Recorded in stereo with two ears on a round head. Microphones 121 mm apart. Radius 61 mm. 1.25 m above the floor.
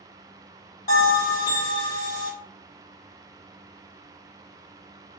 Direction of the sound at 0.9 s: 60° left (ahead or behind).